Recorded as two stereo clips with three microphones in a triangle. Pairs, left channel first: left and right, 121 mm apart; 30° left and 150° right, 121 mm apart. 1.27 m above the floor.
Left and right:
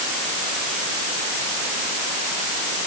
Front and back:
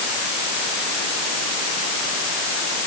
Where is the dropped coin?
No dropped coin in this recording.